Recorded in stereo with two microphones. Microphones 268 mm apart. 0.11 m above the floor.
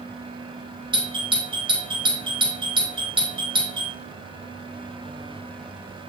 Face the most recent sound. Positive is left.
turn(degrees=-20)  # may be behind; listen again after turning